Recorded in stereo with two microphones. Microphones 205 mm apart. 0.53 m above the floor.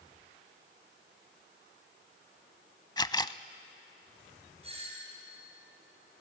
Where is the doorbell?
30° right (ahead or behind), 5.5 m.